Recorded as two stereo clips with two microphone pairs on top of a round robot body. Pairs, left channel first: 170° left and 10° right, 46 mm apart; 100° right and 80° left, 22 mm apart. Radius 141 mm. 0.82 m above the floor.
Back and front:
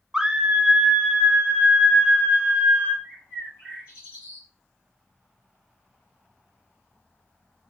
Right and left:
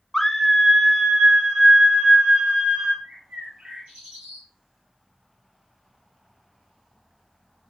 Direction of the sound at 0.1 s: 60° right.